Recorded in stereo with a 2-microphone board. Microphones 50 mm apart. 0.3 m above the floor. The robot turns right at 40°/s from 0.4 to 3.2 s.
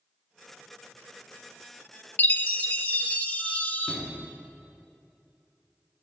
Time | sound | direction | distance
2.2 | a chime | 85° left | 0.6 m
3.9 | a sliding door | 10° left (ahead or behind) | 1.6 m